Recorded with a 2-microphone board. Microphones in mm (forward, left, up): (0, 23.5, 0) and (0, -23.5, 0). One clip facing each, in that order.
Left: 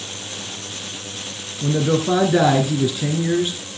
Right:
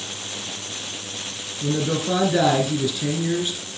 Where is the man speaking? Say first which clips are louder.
Left 4 dB; 20° left (ahead or behind), 1.4 m.